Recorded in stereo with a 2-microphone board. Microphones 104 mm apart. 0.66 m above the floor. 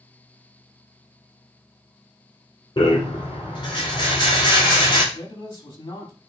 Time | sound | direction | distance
2.8 | a rattle | 45° left (ahead or behind) | 2.5 m
5.1 | a man speaking | 45° left (ahead or behind) | 1.8 m